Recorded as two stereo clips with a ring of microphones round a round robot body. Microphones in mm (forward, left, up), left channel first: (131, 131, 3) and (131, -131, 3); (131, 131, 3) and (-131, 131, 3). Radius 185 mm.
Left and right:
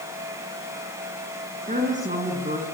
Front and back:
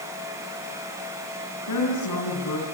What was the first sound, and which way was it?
A woman speaking, 25° right.